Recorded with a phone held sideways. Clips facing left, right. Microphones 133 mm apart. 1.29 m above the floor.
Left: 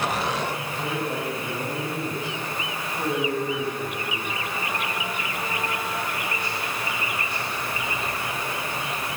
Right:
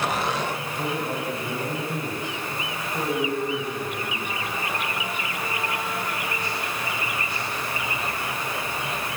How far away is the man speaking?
About 8.5 m.